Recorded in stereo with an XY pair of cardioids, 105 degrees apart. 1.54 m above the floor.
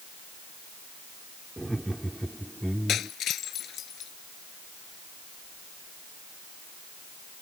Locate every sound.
1.6 s laughter: 10° right; by 3.1 s 5° left
2.9 s breaking glass: 65° left